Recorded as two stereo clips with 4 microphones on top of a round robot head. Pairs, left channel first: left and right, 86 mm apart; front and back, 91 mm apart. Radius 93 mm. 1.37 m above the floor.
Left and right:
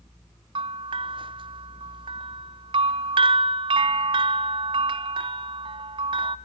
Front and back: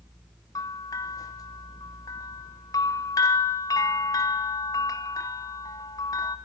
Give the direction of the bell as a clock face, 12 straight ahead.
2 o'clock.